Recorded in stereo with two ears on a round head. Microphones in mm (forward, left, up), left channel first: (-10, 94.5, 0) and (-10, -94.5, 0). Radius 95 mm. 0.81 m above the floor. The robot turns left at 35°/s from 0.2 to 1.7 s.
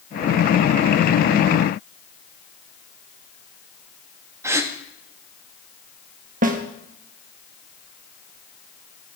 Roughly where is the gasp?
Centre.